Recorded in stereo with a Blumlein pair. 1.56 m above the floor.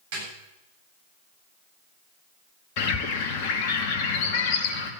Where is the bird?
45° left, 2 m.